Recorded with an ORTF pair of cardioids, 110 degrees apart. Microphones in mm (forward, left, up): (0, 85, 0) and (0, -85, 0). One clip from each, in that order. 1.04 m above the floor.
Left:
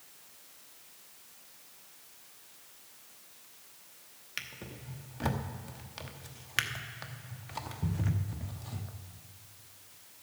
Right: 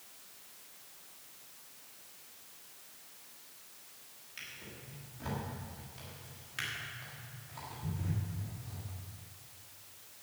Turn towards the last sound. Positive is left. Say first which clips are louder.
# left 5 dB
turn(degrees=65)